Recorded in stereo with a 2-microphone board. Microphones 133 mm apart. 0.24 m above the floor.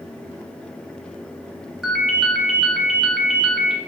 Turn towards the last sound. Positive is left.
turn(degrees=0)  # may be behind; listen again after turning